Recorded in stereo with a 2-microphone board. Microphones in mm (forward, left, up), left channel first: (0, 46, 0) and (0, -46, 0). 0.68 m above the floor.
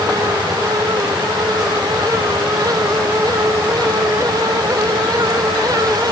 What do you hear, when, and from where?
Only background noise.